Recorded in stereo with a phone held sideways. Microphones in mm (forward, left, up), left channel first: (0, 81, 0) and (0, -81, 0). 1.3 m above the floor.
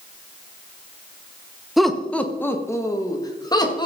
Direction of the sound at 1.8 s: Centre (ahead or behind).